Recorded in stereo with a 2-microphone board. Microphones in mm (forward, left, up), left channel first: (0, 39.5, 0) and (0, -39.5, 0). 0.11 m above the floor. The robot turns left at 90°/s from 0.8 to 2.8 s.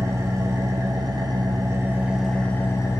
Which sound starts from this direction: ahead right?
An engine running, at 0.0 s.